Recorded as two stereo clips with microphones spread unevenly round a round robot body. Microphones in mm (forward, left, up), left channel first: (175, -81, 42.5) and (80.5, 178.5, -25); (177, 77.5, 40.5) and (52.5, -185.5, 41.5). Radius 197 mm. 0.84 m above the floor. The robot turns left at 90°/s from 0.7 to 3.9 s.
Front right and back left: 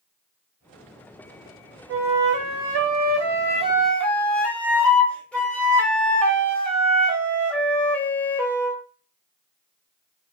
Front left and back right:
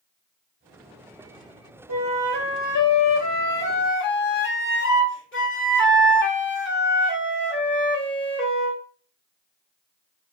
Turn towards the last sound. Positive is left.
turn(degrees=15)